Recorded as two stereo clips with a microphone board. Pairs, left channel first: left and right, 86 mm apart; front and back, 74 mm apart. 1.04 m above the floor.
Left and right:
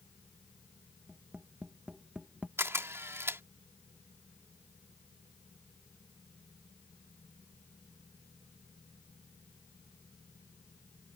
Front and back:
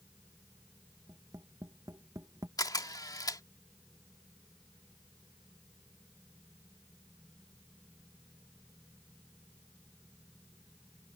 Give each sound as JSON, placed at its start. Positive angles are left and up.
{"t": 1.1, "sound": "tapping", "azimuth_deg": -165}
{"t": 2.6, "sound": "a camera shutter", "azimuth_deg": -30}